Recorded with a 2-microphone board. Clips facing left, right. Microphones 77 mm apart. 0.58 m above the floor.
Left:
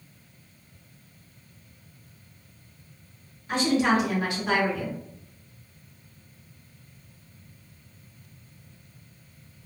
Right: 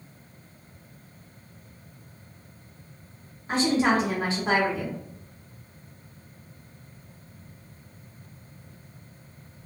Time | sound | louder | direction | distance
3.5 | a woman speaking | even | 35° right (ahead or behind) | 1.4 m